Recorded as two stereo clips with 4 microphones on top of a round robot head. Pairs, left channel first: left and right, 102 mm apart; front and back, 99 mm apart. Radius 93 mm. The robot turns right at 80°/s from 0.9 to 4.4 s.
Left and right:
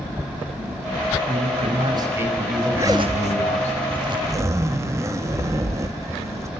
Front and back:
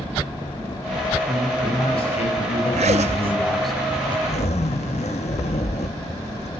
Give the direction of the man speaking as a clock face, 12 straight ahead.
3 o'clock.